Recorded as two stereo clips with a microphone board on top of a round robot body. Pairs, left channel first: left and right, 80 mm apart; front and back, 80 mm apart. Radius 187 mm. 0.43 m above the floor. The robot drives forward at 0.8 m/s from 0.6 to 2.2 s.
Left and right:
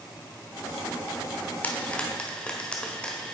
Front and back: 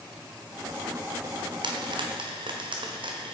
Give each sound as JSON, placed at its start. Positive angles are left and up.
{"t": 1.6, "sound": "frying", "azimuth_deg": 160, "distance_m": 0.9}